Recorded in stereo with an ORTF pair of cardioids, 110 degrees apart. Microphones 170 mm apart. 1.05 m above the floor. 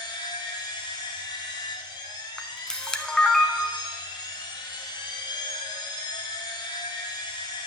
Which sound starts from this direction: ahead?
A camera shutter, at 2.4 s.